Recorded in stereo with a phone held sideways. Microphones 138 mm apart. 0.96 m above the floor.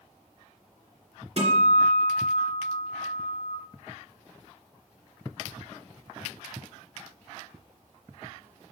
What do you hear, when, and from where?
1.4 s a guitar: 50° right (ahead or behind), 3 m